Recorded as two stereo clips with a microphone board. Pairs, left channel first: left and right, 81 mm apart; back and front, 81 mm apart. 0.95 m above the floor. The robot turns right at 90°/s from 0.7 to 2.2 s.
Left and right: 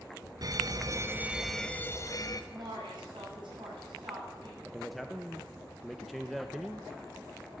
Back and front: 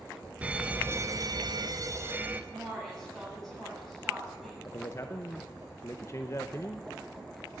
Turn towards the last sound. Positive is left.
turn(degrees=180)